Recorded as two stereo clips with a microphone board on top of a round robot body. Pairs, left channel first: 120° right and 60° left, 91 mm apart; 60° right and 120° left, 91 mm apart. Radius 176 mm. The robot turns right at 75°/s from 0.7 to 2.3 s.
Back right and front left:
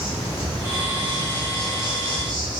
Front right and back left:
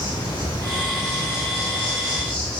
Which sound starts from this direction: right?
An insect, at 0.0 s.